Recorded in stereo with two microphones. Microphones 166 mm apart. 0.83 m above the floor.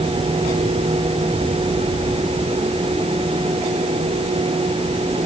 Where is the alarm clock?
I don't hear an alarm clock.